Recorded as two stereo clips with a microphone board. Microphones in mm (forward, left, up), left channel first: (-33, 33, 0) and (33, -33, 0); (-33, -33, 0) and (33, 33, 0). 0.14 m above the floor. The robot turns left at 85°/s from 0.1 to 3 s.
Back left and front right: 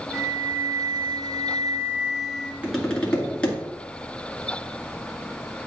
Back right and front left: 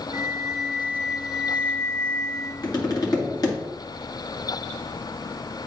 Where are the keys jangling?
No keys jangling in this recording.